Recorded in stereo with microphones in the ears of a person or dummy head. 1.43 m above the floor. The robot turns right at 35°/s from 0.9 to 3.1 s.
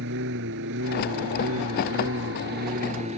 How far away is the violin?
No violin in this recording.